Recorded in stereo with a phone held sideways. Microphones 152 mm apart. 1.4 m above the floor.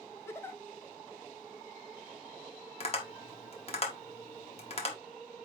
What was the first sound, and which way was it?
A giggle, 15° left (ahead or behind).